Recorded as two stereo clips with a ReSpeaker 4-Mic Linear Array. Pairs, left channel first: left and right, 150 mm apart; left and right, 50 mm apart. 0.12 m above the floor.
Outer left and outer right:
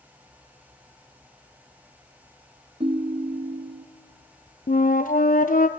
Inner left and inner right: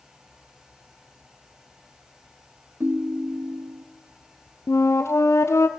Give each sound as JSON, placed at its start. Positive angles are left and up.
{"t": 2.8, "sound": "a ringtone", "side_deg": -45, "distance_m": 0.8}
{"t": 4.7, "sound": "a flute", "side_deg": 75, "distance_m": 0.7}